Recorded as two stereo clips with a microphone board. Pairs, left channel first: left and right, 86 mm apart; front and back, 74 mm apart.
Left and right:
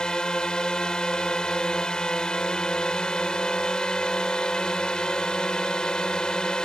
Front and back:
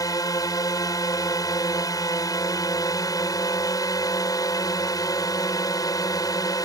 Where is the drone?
10° left.